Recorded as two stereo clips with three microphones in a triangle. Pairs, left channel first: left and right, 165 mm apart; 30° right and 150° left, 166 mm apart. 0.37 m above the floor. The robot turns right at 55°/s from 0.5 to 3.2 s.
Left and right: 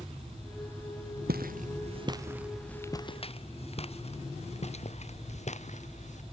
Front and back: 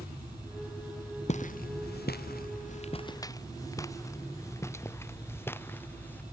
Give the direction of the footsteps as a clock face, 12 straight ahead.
2 o'clock.